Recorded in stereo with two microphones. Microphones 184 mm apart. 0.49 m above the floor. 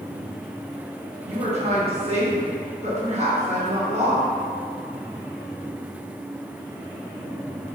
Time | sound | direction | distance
1.3 | a woman speaking | 40° right (ahead or behind) | 0.9 m